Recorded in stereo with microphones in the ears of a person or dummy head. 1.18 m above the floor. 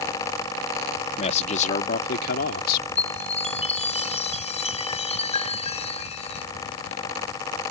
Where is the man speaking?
35° left (ahead or behind); by 2.9 s 55° left (ahead or behind).